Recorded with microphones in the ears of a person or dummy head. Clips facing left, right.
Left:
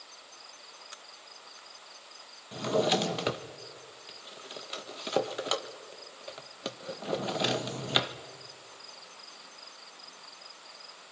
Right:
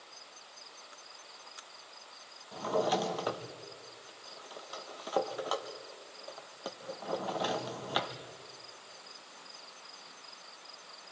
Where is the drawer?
30° left (ahead or behind), 1.1 m.